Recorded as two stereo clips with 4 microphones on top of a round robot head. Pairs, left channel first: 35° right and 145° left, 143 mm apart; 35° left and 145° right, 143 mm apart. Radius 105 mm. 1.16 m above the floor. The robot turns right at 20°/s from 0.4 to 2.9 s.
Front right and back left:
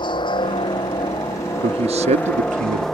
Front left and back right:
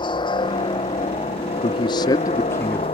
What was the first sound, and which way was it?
A helicopter, straight ahead.